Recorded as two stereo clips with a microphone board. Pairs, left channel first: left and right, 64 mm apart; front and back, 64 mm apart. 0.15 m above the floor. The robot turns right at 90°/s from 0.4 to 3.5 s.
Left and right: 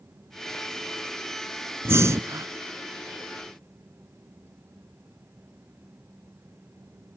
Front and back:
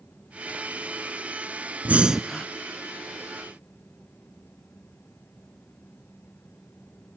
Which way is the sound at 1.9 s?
125° right.